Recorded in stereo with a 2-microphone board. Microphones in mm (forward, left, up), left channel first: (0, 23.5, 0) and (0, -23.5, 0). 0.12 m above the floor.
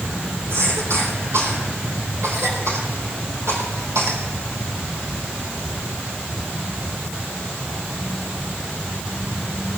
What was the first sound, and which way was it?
A cough, 75° right (ahead or behind).